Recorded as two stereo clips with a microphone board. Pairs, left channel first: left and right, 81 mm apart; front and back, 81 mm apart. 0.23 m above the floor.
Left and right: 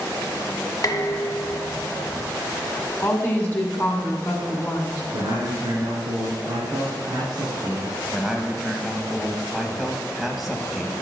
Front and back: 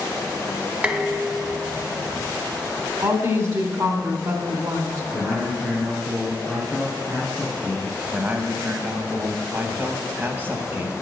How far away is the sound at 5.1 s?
About 2.5 m.